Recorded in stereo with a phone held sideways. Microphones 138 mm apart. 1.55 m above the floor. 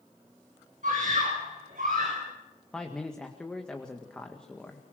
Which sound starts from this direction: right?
A scream, at 0.8 s.